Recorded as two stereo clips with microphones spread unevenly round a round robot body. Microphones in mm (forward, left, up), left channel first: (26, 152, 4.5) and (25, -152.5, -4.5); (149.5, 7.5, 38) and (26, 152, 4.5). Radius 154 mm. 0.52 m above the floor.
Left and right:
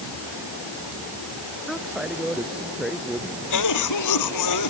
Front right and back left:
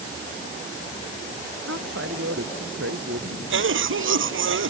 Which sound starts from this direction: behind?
A woman speaking, at 1.7 s.